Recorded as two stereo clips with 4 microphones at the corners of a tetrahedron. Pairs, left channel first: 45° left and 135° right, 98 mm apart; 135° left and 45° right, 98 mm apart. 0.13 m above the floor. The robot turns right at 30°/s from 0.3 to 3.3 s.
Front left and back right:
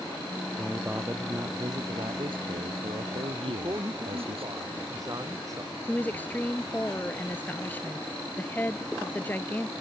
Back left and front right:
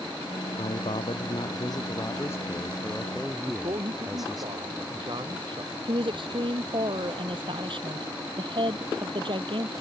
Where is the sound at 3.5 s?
80° right.